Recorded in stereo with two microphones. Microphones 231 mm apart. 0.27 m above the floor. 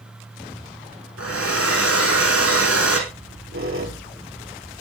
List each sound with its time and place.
1.2 s a hair dryer: 85° left, 5.5 m
3.1 s a squeak: 70° right (ahead or behind), 5 m